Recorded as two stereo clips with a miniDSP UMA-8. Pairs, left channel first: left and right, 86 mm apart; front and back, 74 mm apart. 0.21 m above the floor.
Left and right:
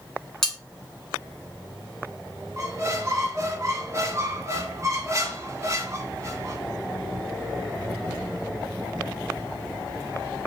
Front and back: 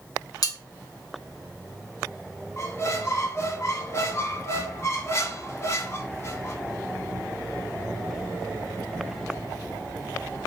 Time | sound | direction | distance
0.4 | cutlery clinking | 5° left | 1.3 m
2.6 | a squeak | 45° right | 0.9 m